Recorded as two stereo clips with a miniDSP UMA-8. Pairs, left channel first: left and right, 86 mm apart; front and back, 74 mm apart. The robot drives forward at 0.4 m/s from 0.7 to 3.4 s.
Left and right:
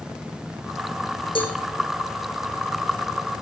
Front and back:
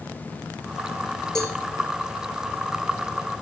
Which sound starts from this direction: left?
A cowbell, at 1.4 s.